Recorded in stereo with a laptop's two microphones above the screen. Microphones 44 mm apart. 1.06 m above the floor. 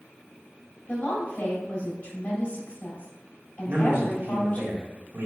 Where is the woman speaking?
30° left (ahead or behind), 2 m.